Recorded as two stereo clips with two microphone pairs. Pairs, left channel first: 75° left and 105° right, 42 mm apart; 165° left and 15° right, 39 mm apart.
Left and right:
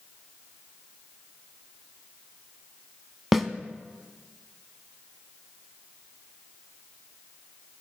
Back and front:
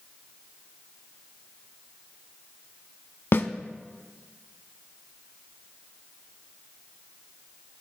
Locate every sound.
3.3 s a snare drum: 170° left, 0.5 m